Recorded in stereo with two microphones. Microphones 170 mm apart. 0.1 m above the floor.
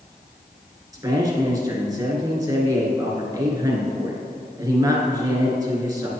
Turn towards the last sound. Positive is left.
turn(degrees=-20)  # may be behind; listen again after turning